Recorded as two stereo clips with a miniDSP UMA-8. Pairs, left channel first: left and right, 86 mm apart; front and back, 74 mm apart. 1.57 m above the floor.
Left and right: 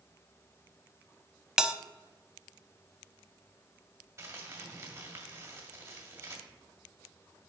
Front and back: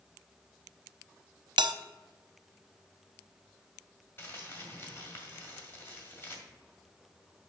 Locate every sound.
1.6 s a bell: 170° right, 0.5 m
4.2 s crumpling: 50° right, 1.9 m